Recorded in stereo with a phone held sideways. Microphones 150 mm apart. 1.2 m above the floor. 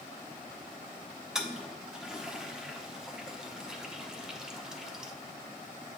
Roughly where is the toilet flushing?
Centre.